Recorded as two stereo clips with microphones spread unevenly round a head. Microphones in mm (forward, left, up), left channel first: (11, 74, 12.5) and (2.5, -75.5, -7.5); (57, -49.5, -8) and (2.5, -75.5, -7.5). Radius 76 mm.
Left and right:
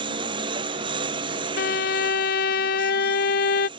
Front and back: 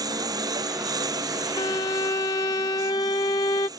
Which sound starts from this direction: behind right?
A lawn mower, at 0.0 s.